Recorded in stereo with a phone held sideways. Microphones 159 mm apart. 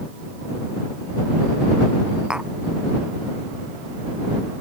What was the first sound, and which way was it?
Tapping, 5° right (ahead or behind).